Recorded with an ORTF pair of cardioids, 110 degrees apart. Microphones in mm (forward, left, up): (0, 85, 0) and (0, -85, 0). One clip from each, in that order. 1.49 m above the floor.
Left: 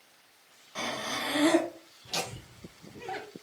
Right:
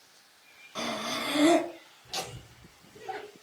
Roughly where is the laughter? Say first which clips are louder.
Left 2 dB; ahead.